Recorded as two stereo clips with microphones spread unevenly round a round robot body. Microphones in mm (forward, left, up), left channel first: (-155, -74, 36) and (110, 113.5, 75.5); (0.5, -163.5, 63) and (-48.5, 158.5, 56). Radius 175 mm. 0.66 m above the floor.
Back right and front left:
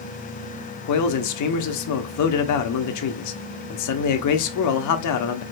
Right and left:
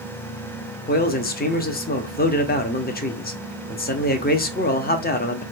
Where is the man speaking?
140° right, 0.9 m.